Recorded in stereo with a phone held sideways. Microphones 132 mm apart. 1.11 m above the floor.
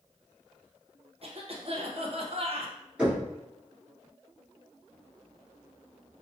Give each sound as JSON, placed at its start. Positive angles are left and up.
{"t": 1.2, "sound": "a cough", "side_deg": -45, "distance_m": 0.9}
{"t": 3.0, "sound": "knocking", "side_deg": -5, "distance_m": 2.5}